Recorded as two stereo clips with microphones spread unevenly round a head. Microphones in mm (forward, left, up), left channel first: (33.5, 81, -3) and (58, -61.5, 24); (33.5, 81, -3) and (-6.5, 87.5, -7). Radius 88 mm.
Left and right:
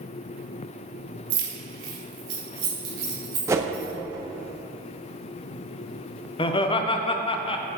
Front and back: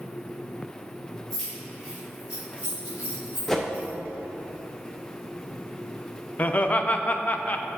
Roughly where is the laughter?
Ahead left.